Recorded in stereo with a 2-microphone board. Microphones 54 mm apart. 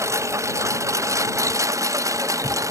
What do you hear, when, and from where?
0.0 s a lawn mower: 60° right (ahead or behind); by 2.7 s 80° right